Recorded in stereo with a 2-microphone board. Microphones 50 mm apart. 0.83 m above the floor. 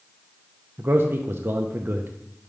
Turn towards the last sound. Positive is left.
turn(degrees=-45)  # may be behind; listen again after turning